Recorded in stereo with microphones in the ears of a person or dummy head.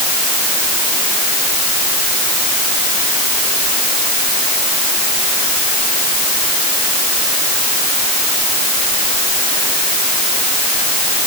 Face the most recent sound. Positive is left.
No sound to turn to.